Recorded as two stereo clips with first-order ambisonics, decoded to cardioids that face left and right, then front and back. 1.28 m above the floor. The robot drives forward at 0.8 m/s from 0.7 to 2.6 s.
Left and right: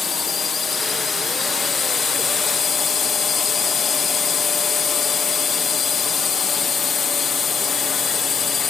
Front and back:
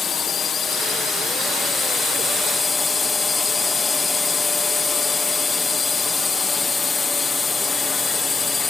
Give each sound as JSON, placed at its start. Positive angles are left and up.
{"t": 0.0, "sound": "a drone", "azimuth_deg": 40}